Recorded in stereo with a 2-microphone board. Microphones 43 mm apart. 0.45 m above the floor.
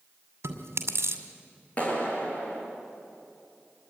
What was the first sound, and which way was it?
Chewing, 75° right (ahead or behind).